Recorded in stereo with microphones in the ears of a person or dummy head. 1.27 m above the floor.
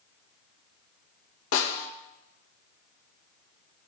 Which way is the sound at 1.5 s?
75° left (ahead or behind).